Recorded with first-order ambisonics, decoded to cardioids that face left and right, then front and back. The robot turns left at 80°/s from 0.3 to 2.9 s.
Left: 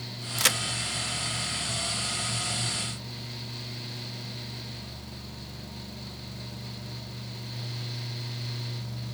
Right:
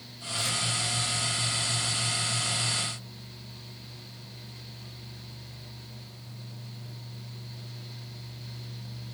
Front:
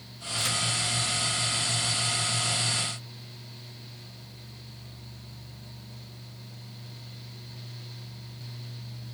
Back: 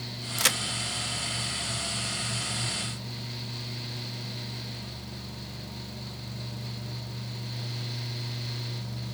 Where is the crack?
135° left, 0.6 m; by 0.6 s 115° left, 0.6 m.